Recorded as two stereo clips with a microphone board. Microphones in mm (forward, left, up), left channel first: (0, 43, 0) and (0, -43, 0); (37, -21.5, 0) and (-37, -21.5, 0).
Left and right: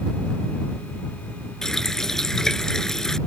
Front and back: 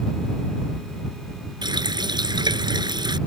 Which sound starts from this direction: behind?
A running tap, at 1.6 s.